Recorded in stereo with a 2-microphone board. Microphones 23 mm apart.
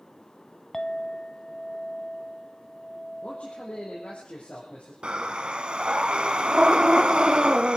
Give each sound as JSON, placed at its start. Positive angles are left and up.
{"t": 0.7, "sound": "a clink", "side_deg": 20, "distance_m": 0.9}
{"t": 3.2, "sound": "a man speaking", "side_deg": 75, "distance_m": 6.5}
{"t": 5.0, "sound": "breathing", "side_deg": -50, "distance_m": 1.4}